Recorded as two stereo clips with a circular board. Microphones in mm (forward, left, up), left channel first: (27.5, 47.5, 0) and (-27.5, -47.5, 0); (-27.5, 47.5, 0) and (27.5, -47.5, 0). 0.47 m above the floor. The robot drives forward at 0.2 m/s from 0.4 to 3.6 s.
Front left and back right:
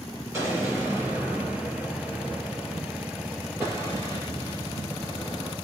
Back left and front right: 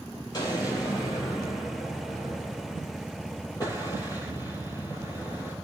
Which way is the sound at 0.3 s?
175° left.